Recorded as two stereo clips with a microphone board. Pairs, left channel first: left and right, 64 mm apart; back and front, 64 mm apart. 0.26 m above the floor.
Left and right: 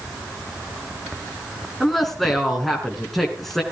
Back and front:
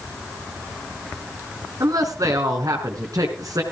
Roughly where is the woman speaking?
Ahead.